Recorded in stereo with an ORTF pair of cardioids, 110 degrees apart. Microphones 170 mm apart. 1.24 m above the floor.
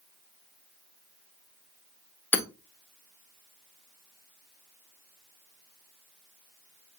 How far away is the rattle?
I don't hear a rattle.